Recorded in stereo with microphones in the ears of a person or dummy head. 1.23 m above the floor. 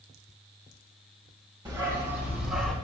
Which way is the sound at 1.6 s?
20° right (ahead or behind).